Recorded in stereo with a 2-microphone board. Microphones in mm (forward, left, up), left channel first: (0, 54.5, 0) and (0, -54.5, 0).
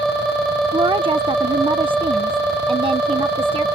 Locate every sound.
0.7 s a woman speaking: 55° right (ahead or behind)